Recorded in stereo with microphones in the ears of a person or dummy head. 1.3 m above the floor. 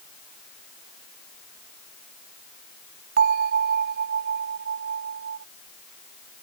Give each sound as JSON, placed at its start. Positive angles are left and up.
{"t": 3.2, "sound": "a bell", "side_deg": -50}